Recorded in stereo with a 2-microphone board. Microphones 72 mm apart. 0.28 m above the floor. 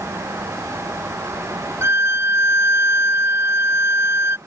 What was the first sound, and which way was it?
A violin, 45° right (ahead or behind).